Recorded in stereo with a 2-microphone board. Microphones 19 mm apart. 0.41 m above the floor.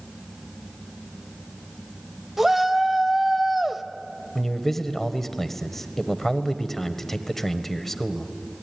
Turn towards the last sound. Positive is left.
turn(degrees=20)  # may be behind; listen again after turning